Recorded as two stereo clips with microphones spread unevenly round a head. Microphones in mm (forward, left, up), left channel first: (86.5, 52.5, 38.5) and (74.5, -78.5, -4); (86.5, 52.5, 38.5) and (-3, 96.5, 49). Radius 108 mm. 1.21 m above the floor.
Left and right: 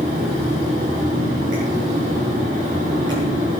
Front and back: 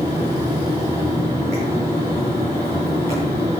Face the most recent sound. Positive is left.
turn(degrees=-155)